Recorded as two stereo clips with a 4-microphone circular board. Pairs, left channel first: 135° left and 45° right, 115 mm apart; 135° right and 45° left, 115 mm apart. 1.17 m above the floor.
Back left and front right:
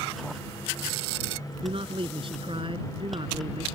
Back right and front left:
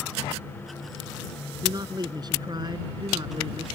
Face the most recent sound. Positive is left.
turn(degrees=-5)